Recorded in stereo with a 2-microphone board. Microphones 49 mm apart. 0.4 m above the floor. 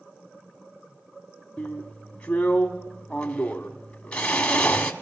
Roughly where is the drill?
Left.